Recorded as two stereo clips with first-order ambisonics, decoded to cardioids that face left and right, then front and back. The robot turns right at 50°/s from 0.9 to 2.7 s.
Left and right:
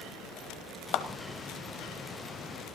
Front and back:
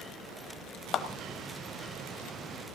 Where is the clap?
50° left, 1.0 m; by 1.1 s 55° left, 1.0 m.